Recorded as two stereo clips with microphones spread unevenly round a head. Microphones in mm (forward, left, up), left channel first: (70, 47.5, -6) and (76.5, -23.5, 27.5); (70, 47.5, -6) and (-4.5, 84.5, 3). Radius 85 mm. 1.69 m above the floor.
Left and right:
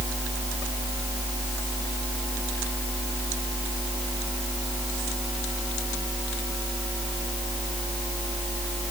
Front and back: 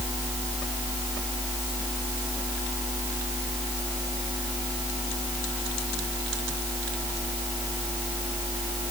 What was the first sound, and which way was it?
Only background noise.